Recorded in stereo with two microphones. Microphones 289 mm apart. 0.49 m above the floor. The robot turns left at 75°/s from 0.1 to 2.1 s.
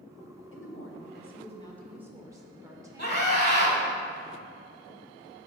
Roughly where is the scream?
Left.